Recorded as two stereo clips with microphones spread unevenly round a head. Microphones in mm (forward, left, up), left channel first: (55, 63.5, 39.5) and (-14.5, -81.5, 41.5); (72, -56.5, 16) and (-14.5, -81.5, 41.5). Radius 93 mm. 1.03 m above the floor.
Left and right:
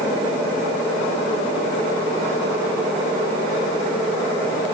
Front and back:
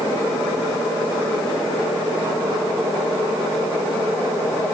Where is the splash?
I don't hear a splash.